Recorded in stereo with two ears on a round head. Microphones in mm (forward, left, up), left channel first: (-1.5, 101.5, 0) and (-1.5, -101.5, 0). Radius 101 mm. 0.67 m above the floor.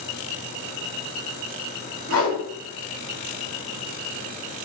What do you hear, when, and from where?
2.1 s a whoosh: 45° right (ahead or behind), 1.6 m